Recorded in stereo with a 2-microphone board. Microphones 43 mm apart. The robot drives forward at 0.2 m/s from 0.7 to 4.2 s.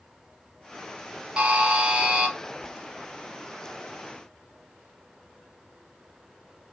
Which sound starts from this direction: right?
A buzzer, at 1.4 s.